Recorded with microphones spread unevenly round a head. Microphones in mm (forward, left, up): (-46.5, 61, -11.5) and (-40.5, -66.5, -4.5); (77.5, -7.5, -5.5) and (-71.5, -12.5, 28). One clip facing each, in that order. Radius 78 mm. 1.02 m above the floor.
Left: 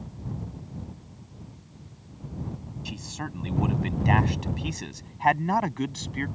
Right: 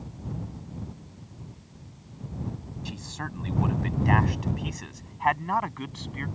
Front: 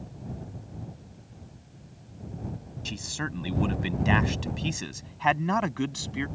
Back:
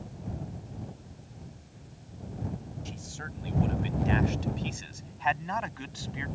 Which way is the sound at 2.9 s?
10° left.